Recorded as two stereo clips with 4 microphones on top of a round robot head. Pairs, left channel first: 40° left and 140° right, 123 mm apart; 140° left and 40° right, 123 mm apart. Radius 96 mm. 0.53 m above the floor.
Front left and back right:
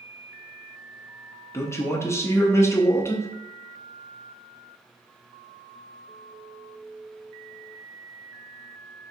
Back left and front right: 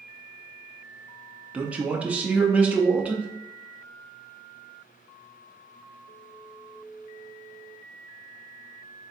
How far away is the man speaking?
About 0.6 m.